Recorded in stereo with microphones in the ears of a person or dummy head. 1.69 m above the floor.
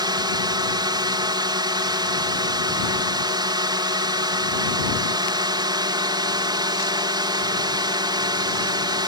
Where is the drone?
25° right (ahead or behind).